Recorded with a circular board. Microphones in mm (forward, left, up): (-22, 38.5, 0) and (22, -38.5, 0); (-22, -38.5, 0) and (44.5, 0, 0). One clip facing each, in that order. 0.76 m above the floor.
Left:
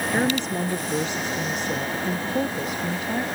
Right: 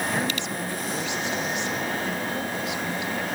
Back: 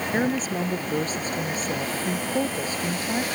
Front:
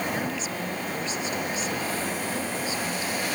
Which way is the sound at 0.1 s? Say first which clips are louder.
Left 5 dB, back 6 dB; 170° left.